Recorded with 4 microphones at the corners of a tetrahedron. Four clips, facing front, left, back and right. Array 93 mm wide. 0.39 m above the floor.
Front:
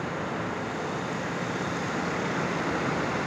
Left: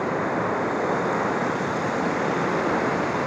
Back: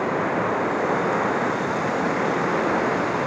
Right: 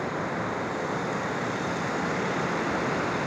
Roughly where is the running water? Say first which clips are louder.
Left 6 dB, back 9 dB; behind left.